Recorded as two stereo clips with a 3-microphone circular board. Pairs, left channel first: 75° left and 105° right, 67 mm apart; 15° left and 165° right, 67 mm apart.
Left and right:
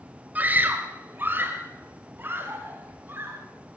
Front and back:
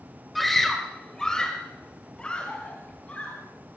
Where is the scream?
75° right, 1.4 m; by 3.4 s 55° right, 3 m.